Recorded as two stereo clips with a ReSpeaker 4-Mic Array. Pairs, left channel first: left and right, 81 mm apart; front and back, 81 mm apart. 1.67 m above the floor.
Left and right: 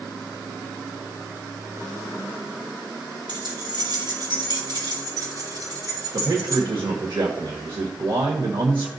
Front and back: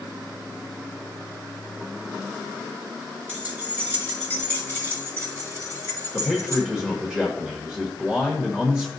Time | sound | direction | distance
3.3 | keys jangling | 115° right | 5 m
6.1 | a man speaking | 100° right | 1.4 m